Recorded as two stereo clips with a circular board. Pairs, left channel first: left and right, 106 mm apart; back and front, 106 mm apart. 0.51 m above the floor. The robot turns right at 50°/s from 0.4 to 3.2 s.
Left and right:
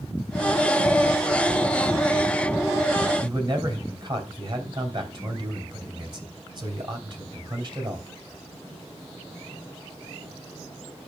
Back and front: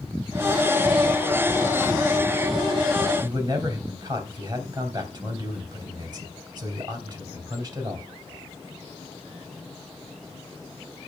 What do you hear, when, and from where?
3.2 s a man speaking: 45° right, 3 m